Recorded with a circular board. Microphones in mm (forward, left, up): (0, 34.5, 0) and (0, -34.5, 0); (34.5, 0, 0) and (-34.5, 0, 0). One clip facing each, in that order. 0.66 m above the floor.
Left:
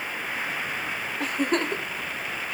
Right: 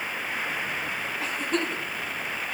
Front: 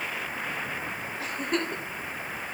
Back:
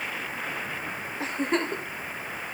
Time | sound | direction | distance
1.2 | a giggle | 120° left | 2 m